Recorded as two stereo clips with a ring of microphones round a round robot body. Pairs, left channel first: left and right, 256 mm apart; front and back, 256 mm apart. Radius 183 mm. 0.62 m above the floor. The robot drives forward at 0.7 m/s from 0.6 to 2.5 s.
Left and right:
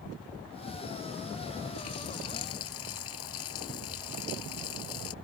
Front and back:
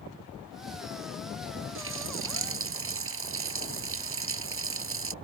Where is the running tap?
145° left.